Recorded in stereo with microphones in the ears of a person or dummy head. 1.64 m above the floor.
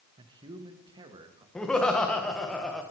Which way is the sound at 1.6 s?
5° left (ahead or behind).